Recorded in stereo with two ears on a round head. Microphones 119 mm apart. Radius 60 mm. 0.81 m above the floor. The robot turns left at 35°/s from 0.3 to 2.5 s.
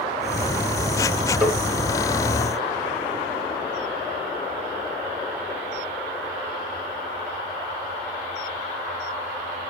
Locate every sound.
1.4 s tapping: 5° right (ahead or behind), 5 m; by 1.6 s centre (ahead or behind), 5 m